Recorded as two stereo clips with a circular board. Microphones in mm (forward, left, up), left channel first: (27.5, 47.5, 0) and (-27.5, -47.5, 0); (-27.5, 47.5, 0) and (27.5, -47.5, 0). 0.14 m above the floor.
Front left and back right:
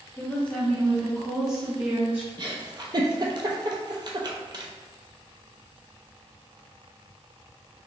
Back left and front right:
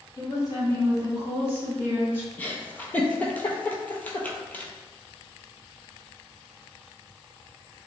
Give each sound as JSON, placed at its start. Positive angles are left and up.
{"t": 0.2, "sound": "a woman speaking", "azimuth_deg": 115, "distance_m": 1.4}
{"t": 2.4, "sound": "a giggle", "azimuth_deg": -165, "distance_m": 0.6}